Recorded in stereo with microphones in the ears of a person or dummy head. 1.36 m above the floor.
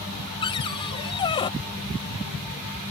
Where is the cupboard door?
25° left (ahead or behind).